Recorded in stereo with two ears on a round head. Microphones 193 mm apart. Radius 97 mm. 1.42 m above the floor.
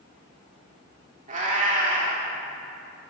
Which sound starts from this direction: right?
A cat meowing, at 1.3 s.